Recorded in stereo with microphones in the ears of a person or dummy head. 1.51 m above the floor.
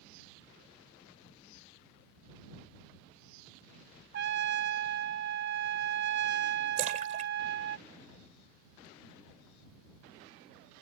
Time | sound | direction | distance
4.1 | a trumpet | 55° right (ahead or behind) | ?
6.8 | a splash | 40° right (ahead or behind) | ?